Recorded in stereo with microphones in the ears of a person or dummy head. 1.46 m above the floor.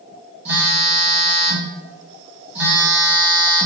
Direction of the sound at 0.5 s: 10° right (ahead or behind).